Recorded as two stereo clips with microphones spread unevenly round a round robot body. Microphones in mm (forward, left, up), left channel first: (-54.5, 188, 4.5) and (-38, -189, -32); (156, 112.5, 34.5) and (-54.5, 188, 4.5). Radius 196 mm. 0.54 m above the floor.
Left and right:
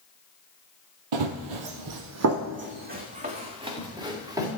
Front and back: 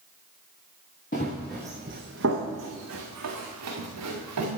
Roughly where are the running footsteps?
Right.